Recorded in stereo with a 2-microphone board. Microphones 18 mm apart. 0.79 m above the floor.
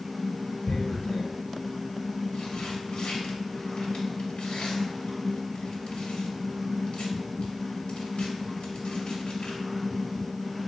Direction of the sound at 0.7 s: 70° left (ahead or behind).